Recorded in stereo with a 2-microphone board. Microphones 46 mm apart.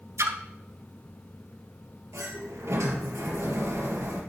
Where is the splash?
70° right (ahead or behind), 1.0 m.